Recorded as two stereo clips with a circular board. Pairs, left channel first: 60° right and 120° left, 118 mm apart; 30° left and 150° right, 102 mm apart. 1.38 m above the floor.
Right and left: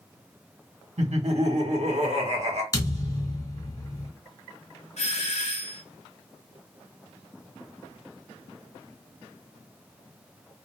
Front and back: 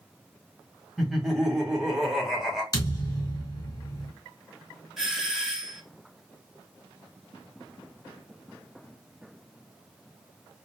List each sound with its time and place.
1.0 s laughter: 125° left, 1.1 m
2.7 s a thud: 15° right, 1.9 m
5.0 s a doorbell: 65° right, 0.8 m